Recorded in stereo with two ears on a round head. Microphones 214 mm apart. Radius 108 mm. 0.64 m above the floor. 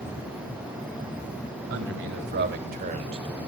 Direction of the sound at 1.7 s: 60° right (ahead or behind).